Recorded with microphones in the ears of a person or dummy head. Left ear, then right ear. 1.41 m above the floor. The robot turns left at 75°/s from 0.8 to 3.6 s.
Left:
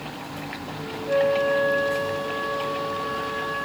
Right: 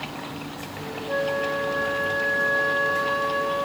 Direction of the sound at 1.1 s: 110° left.